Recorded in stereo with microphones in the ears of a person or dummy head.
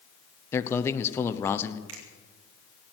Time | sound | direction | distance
0.5 | a man speaking | 15° left (ahead or behind) | 0.9 m
1.9 | a finger snap | 80° right | 3 m